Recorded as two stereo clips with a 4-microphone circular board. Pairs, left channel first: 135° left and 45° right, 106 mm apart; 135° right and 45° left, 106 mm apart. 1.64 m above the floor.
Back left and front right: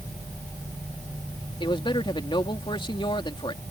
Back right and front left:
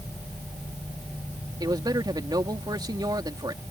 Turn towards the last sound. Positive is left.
turn(degrees=95)